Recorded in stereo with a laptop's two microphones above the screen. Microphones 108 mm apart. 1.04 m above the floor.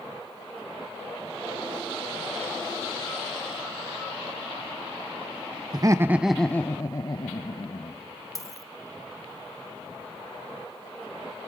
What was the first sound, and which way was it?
Laughter, 40° right (ahead or behind).